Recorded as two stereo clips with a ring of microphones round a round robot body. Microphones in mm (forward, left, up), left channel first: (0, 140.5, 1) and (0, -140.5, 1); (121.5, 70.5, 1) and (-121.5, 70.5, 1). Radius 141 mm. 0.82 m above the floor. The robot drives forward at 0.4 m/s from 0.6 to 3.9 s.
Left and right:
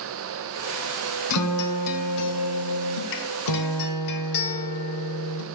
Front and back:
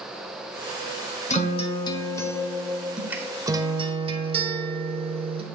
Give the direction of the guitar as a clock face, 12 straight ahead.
10 o'clock.